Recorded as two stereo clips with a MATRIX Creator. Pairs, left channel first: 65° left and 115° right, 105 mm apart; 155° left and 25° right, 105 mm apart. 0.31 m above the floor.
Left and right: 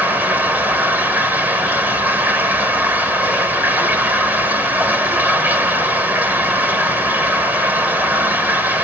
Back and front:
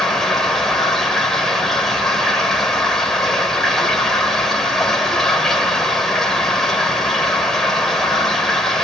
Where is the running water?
125° right, 1.2 m.